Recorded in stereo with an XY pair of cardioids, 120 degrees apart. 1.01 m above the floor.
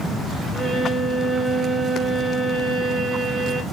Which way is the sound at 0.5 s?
20° right.